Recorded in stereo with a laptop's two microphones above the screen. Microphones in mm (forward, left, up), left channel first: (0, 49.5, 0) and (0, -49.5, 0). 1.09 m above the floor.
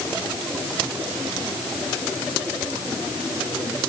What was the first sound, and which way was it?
Only background noise.